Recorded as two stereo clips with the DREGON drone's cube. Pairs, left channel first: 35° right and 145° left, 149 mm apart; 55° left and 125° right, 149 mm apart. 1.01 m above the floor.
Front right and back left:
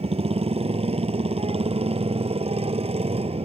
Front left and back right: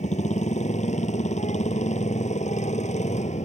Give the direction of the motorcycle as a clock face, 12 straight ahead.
9 o'clock.